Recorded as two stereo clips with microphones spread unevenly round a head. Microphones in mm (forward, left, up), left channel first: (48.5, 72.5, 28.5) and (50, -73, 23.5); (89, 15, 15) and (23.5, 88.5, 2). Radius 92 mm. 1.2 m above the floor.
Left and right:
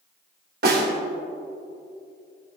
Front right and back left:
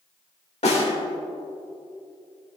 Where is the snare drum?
85° right, 2.5 m.